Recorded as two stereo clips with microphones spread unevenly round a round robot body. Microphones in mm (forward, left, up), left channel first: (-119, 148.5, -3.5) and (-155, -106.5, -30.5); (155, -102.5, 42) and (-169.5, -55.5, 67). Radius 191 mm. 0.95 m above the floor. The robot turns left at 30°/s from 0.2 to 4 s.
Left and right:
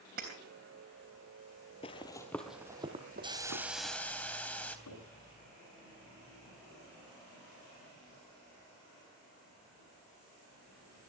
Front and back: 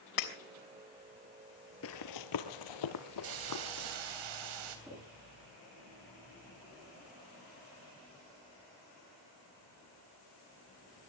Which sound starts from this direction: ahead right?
Breaking glass, at 0.2 s.